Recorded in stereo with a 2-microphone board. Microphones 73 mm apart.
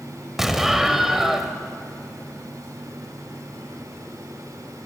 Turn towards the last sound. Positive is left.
turn(degrees=-5)  # may be behind; listen again after turning